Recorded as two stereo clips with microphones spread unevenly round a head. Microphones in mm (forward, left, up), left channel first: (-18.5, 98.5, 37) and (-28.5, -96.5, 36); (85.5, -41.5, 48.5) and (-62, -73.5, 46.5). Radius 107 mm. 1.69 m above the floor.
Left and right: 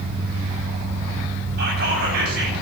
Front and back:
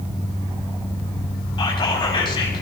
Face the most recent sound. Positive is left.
turn(degrees=-50)